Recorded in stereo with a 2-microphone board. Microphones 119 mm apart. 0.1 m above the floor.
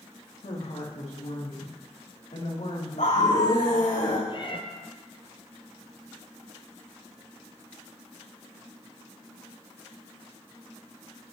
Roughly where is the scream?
Left.